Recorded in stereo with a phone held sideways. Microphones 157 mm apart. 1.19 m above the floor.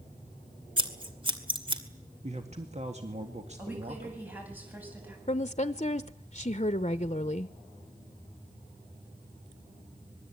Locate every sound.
0.8 s scissors: 30° right (ahead or behind), 2.5 m
2.2 s a man speaking: 45° right (ahead or behind), 1.8 m
3.6 s a woman speaking: 10° right (ahead or behind), 9 m
5.3 s a woman speaking: 40° left (ahead or behind), 0.7 m